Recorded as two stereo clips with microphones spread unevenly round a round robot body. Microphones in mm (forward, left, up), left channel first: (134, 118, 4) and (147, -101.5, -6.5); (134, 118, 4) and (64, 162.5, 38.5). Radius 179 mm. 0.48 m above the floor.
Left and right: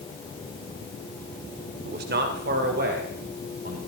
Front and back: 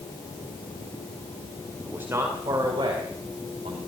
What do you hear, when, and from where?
1.9 s a man speaking: 115° right, 1.8 m; by 3.8 s 155° right, 4 m